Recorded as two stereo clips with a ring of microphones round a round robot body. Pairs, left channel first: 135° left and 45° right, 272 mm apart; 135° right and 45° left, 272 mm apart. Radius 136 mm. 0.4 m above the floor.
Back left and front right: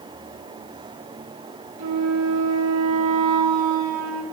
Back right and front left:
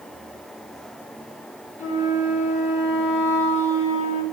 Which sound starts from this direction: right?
A flute, at 1.8 s.